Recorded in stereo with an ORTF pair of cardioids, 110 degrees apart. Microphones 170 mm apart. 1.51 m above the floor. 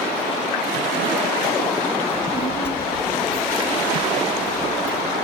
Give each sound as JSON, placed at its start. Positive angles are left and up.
{"t": 2.1, "sound": "a child speaking", "azimuth_deg": 15, "distance_m": 1.9}